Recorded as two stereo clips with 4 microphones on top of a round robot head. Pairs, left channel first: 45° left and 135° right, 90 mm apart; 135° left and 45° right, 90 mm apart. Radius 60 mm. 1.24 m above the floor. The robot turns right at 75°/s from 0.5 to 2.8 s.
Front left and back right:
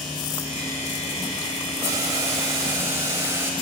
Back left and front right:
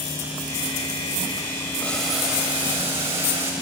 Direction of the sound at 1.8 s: 160° right.